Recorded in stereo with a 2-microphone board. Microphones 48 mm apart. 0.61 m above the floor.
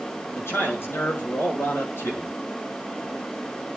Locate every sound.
0.3 s a man speaking: 55° left (ahead or behind), 7.5 m